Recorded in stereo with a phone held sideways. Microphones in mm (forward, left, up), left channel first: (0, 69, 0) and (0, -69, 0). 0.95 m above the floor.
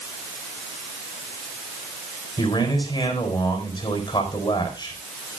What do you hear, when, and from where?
2.4 s a man speaking: 35° left (ahead or behind), 4.5 m